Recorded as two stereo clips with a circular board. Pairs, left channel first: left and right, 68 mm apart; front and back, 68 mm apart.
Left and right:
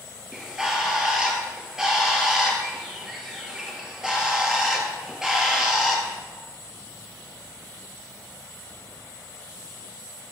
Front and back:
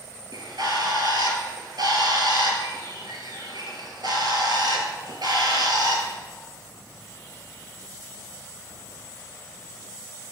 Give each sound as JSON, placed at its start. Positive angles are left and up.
{"t": 0.3, "sound": "a bird", "azimuth_deg": -170, "distance_m": 2.5}